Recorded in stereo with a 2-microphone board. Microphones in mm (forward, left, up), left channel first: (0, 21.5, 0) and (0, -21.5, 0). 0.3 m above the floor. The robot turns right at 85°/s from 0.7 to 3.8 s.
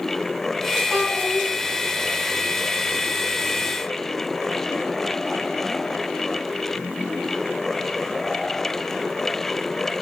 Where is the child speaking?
140° right, 2 m; by 1.5 s 90° right, 2 m.